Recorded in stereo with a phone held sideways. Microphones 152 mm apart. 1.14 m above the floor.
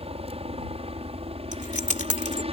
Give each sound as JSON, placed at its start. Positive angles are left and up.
{"t": 0.0, "sound": "a helicopter", "side_deg": -40}
{"t": 1.5, "sound": "keys jangling", "side_deg": 55}